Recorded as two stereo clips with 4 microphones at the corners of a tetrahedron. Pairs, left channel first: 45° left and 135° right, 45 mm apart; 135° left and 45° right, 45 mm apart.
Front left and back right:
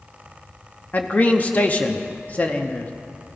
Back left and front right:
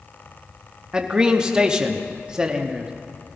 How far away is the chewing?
I don't hear chewing.